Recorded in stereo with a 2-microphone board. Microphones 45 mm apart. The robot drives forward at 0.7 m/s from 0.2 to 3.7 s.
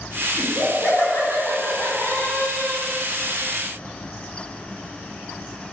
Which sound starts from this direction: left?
Laughter, at 0.4 s.